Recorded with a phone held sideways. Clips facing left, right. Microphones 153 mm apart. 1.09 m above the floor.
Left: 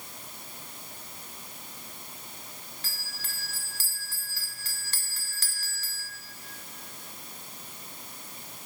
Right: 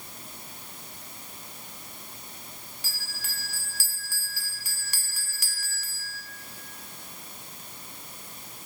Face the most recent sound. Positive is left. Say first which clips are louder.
# right 1 dB
turn(degrees=-10)  # may be behind; listen again after turning